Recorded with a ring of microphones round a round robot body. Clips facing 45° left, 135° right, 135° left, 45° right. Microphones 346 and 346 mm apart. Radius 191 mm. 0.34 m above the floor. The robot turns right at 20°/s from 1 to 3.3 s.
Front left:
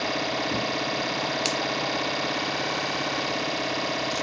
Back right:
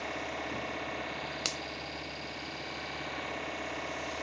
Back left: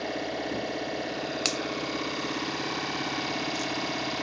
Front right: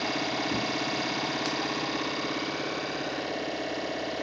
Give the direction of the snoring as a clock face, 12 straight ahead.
I don't hear snoring.